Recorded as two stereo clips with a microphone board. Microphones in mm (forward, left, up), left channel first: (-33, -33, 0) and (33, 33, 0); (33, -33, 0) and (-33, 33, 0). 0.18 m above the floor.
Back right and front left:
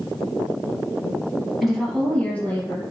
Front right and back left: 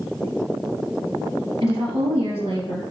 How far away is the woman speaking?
About 3 m.